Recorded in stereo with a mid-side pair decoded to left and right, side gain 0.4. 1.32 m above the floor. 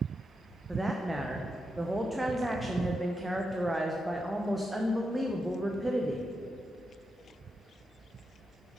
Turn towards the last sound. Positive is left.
turn(degrees=-15)